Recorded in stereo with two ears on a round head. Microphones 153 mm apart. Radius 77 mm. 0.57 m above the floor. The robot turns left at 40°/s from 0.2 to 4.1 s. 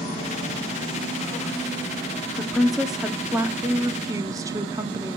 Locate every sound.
2.4 s a woman speaking: 5° left (ahead or behind), 0.9 m; by 5.2 s 20° right (ahead or behind), 0.9 m